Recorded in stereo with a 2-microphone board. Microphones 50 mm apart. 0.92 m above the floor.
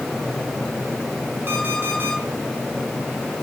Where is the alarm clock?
45° right (ahead or behind), 5 m.